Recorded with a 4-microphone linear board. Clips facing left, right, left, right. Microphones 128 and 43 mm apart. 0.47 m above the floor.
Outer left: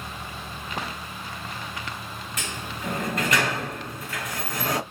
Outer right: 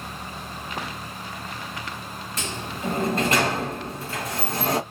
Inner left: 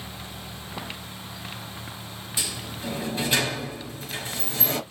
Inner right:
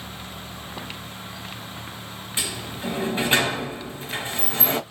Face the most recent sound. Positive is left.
turn(degrees=-35)  # may be behind; listen again after turning